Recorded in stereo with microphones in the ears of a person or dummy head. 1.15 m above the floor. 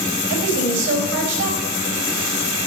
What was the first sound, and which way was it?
A woman speaking, 80° right.